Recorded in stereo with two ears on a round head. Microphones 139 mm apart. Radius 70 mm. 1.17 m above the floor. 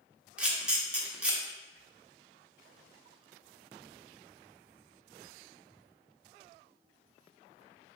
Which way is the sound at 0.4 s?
5° right (ahead or behind).